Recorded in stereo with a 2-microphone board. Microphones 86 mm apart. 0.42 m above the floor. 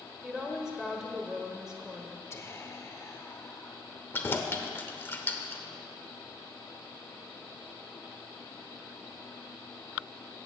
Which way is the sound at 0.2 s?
10° right (ahead or behind).